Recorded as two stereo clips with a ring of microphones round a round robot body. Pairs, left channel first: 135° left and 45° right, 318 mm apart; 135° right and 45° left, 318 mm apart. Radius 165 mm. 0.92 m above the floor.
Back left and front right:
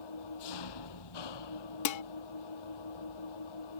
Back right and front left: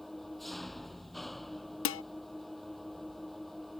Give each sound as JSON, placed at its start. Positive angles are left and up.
{"t": 0.0, "sound": "an engine running", "azimuth_deg": 135}
{"t": 1.9, "sound": "dishes clattering", "azimuth_deg": 170}